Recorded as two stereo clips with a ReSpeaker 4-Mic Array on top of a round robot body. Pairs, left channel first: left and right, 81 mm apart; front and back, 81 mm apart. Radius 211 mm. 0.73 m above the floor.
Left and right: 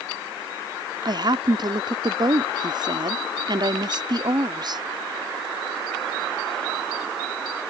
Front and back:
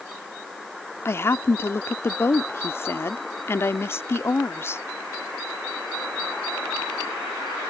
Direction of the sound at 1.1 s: 60° right.